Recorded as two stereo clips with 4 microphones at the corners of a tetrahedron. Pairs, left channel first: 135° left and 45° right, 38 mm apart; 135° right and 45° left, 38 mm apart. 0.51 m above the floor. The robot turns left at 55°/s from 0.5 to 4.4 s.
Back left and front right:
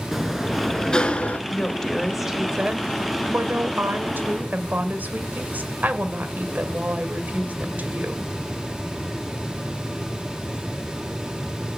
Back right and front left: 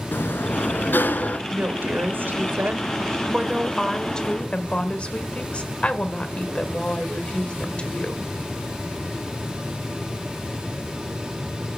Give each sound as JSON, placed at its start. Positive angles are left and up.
{"t": 0.1, "sound": "a sliding door", "azimuth_deg": -130, "distance_m": 1.1}
{"t": 1.5, "sound": "a woman speaking", "azimuth_deg": 80, "distance_m": 1.7}